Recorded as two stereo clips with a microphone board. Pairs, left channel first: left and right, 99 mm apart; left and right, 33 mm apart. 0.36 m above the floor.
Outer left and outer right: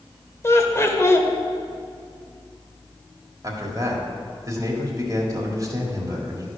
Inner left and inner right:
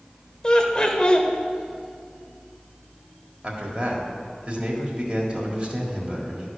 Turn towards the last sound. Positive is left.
turn(degrees=-35)  # may be behind; listen again after turning